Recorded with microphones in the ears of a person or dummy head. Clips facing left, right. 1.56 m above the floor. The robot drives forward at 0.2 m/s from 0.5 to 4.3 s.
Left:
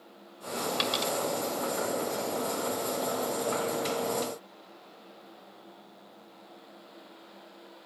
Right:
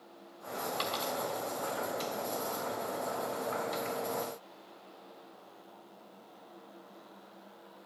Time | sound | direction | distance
0.8 | a dropped coin | 40° left (ahead or behind) | 2.0 m